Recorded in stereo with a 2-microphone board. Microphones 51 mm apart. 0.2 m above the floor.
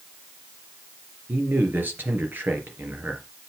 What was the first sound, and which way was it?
A man speaking, 40° right (ahead or behind).